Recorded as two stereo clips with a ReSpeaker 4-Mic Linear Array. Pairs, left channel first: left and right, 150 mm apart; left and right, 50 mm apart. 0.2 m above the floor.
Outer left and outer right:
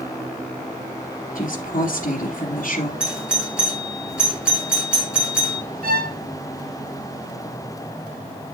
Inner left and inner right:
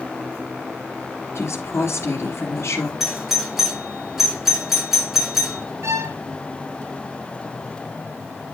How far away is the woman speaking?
About 2.0 m.